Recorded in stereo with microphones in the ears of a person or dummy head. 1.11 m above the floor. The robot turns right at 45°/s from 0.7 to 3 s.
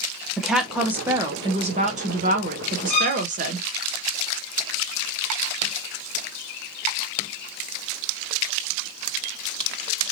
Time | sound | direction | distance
0.4 | a woman speaking | 175° right | 0.7 m
2.9 | a violin | 40° left (ahead or behind) | 0.8 m